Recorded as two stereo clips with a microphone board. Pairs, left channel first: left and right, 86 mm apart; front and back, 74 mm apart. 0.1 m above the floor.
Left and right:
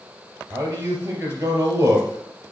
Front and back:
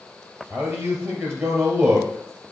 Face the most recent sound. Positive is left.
turn(degrees=-140)